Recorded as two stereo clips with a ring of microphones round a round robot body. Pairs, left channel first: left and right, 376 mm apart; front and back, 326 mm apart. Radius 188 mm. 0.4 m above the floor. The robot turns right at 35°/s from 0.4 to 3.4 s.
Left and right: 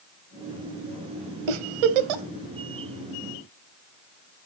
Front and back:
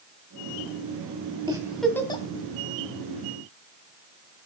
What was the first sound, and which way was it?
A giggle, 100° right.